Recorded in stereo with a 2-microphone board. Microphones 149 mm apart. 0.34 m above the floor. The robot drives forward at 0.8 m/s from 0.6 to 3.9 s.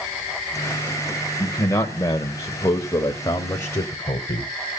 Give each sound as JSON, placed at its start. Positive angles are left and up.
{"t": 1.4, "sound": "a man speaking", "side_deg": 20, "distance_m": 1.4}